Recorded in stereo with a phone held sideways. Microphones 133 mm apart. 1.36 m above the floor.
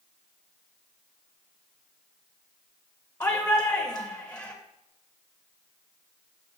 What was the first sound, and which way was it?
A shout, 25° left (ahead or behind).